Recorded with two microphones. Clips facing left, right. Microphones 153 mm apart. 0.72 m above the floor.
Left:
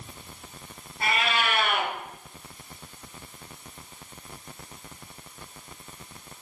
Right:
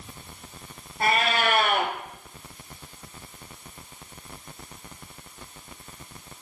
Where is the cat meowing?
45° right (ahead or behind), 2.0 m.